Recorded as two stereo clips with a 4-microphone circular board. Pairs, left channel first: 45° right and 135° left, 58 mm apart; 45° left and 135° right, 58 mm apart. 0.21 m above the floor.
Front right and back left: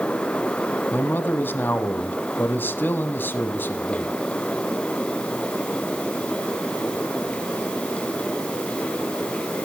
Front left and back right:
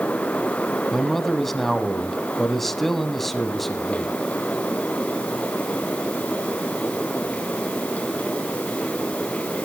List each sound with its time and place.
0.9 s a man speaking: 40° right, 1.2 m